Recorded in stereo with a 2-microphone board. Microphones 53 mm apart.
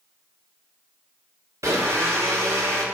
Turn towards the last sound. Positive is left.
turn(degrees=-80)